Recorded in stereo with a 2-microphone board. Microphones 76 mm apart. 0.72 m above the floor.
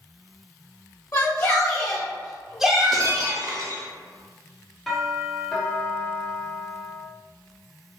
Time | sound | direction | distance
1.1 | a shout | 40° left (ahead or behind) | 1.1 m
2.9 | breaking glass | 50° right (ahead or behind) | 0.5 m
4.9 | a doorbell | centre (ahead or behind) | 1.6 m